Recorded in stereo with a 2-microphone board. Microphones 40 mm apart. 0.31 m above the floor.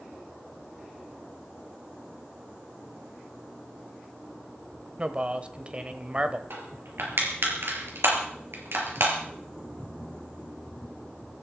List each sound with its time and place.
5.0 s a man speaking: 30° right (ahead or behind), 1.2 m
6.5 s crushing: 75° right (ahead or behind), 4.5 m